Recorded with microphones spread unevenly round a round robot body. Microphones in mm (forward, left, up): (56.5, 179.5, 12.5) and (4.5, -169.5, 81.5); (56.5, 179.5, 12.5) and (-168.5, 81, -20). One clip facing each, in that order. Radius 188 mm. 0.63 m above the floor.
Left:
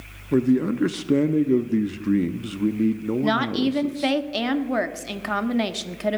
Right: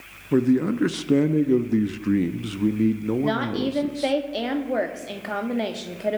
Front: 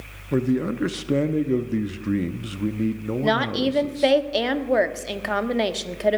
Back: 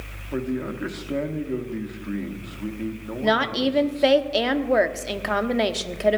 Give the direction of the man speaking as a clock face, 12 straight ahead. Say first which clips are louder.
Even, front 5 dB; 12 o'clock.